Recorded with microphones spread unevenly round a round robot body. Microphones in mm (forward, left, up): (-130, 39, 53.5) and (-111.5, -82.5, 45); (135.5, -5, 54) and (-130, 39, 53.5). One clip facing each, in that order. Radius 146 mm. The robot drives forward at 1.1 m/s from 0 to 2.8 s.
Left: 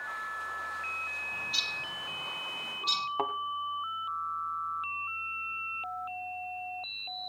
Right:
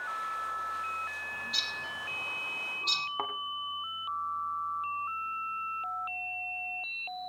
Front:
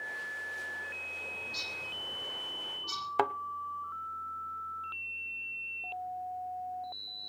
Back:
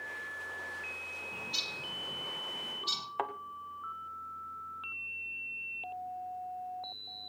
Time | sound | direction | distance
1.3 | a bird | 175° right | 6.5 m
3.2 | a thud | 25° left | 0.8 m